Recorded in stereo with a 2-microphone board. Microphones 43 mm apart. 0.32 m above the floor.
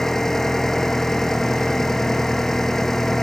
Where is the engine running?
10° left (ahead or behind).